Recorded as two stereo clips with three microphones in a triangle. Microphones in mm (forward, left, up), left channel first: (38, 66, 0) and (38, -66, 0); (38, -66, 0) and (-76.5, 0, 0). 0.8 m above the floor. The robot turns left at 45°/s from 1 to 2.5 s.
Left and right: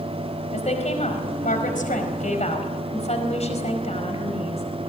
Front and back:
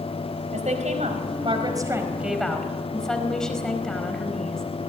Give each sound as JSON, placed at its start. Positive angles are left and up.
{"t": 0.5, "sound": "a woman speaking", "azimuth_deg": 125, "distance_m": 4.5}